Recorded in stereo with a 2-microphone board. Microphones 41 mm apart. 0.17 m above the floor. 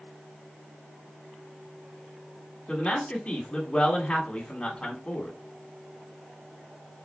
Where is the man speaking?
25° left (ahead or behind), 1.2 m.